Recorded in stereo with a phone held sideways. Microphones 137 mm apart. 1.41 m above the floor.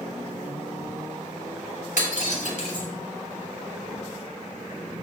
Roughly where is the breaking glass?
Left.